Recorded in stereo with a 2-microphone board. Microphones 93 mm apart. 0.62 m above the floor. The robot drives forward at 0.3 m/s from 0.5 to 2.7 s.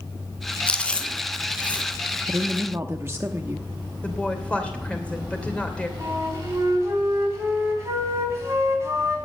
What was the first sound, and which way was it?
Chewing, 10° left (ahead or behind).